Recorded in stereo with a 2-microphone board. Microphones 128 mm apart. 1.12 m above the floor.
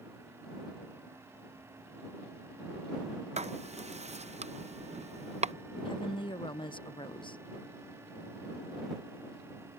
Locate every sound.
3.4 s writing: 65° right (ahead or behind)
5.8 s a woman speaking: 45° left (ahead or behind)